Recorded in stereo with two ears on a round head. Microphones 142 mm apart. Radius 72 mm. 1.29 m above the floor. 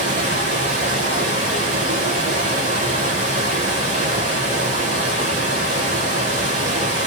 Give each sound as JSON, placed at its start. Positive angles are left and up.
{"t": 0.0, "sound": "running water", "side_deg": -45, "distance_m": 0.7}